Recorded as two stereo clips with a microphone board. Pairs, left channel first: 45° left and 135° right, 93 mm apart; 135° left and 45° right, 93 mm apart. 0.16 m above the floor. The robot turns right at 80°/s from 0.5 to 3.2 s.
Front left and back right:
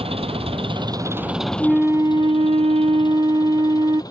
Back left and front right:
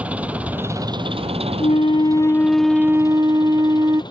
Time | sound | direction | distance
0.0 | an engine running | 120° right | ?
1.6 | a flute | 140° left | ?